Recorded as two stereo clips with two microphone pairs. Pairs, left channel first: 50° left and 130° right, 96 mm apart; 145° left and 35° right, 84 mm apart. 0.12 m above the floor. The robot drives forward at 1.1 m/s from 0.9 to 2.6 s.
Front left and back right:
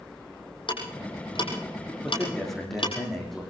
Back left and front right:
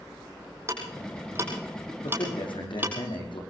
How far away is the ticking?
About 6 m.